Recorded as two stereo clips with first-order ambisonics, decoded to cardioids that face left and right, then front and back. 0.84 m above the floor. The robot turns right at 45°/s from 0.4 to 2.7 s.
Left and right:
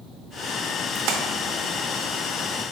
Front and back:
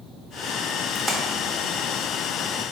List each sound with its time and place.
0.9 s a splash: 95° right, 0.8 m; by 1.2 s 85° right, 0.8 m